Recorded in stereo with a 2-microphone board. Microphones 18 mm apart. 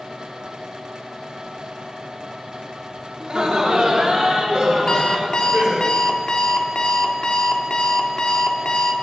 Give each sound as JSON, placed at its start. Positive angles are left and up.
{"t": 3.2, "sound": "laughter", "side_deg": -55, "distance_m": 2.0}
{"t": 4.9, "sound": "an alarm clock", "side_deg": 50, "distance_m": 0.9}